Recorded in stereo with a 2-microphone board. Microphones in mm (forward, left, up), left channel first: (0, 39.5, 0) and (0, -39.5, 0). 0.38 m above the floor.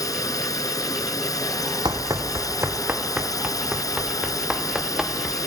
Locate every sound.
0.0 s a drone: 50° left (ahead or behind)
1.9 s running footsteps: 65° right (ahead or behind); by 5.4 s 5° right (ahead or behind)